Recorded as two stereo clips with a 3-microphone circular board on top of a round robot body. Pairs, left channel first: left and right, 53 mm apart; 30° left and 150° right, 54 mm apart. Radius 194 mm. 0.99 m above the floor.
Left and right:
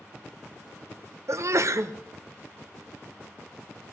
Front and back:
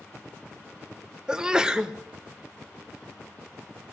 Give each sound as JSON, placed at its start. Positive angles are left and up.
{"t": 1.3, "sound": "a sneeze", "azimuth_deg": -75, "distance_m": 1.1}